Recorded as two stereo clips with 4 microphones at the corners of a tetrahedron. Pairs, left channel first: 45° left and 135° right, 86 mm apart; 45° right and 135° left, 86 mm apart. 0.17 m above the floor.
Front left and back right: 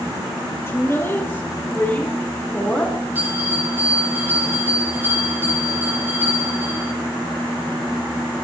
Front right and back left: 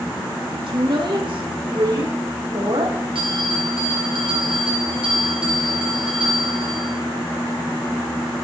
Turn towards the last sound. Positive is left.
turn(degrees=155)